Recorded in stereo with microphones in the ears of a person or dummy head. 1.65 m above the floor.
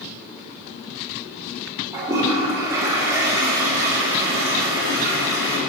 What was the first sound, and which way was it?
A toilet flushing, 10° right (ahead or behind).